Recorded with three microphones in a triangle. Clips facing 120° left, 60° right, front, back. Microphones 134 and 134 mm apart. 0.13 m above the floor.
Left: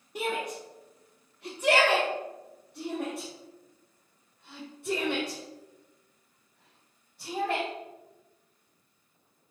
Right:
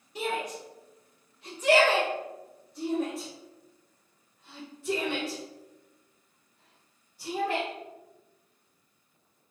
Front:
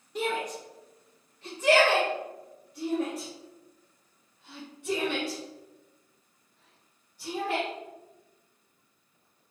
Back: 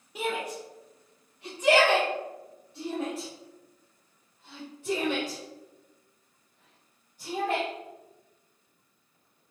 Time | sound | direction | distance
0.1 | a shout | 100° left | 2 m